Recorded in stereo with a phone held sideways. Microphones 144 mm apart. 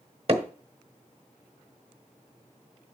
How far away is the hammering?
About 1.4 m.